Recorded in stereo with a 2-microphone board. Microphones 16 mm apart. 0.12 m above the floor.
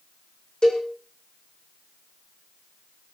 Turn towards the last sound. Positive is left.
turn(degrees=65)  # may be behind; listen again after turning